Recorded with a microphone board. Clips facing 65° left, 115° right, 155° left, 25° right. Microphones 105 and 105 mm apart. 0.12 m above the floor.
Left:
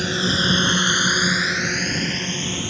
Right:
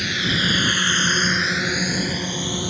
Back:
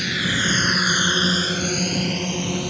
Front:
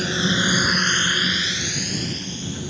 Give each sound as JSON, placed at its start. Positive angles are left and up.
{"t": 0.0, "sound": "a drone", "azimuth_deg": 20}